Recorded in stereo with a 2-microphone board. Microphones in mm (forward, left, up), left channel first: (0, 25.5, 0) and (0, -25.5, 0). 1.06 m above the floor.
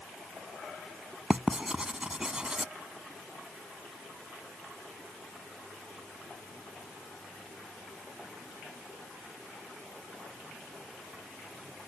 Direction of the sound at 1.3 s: 15° right (ahead or behind).